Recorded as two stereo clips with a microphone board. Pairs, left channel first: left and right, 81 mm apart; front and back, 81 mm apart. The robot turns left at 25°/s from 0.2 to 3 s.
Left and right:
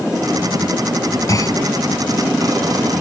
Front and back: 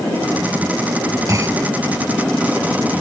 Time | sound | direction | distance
1.3 | a clunk | 135° left | ?